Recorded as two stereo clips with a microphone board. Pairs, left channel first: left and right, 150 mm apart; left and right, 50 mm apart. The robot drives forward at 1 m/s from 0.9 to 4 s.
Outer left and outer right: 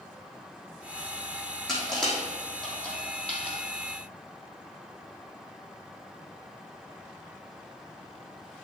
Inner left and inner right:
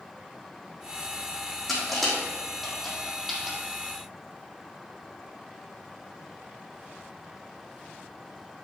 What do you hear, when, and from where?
1.7 s crushing: 5° left (ahead or behind), 4 m